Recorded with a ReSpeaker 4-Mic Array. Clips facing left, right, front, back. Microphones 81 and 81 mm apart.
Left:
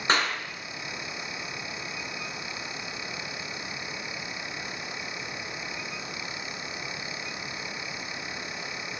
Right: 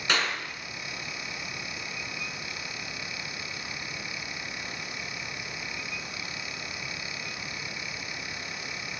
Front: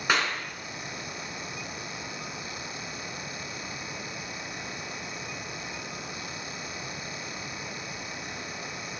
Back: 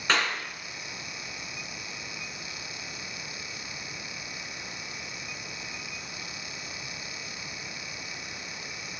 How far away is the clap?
About 1.7 m.